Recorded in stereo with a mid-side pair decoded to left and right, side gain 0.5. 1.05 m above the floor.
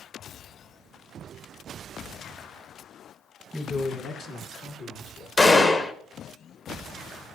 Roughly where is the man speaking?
Ahead.